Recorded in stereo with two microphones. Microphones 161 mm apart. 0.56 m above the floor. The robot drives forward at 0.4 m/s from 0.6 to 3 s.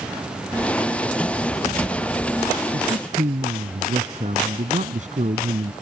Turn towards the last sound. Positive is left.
turn(degrees=-50)  # may be behind; listen again after turning